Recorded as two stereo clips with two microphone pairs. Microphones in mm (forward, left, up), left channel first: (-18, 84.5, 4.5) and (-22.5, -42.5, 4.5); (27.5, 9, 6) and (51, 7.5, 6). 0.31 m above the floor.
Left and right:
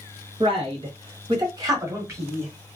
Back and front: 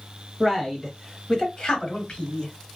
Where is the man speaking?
95° right, 1.3 m; by 2.5 s 160° right, 1.6 m.